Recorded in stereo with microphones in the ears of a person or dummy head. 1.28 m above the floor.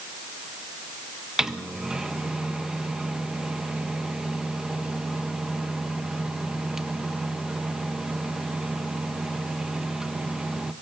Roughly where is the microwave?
Centre.